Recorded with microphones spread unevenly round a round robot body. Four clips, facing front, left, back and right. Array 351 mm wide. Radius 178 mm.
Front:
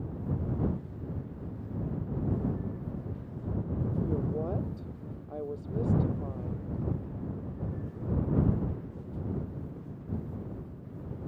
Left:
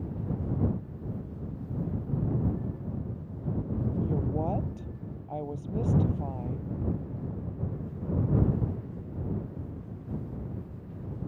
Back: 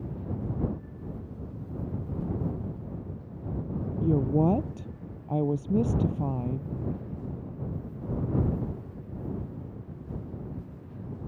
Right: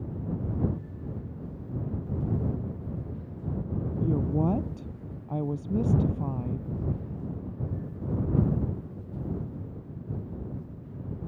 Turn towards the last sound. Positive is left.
turn(degrees=-155)